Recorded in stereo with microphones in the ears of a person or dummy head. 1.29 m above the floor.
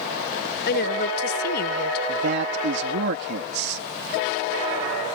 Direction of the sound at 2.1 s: 60° right (ahead or behind).